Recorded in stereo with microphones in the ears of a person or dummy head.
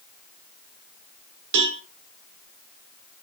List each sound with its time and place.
1.5 s a cowbell: 65° right (ahead or behind), 1.6 m